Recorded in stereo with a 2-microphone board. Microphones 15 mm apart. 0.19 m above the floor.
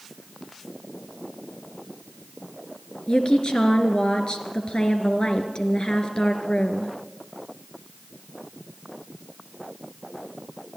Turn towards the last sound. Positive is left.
turn(degrees=65)  # may be behind; listen again after turning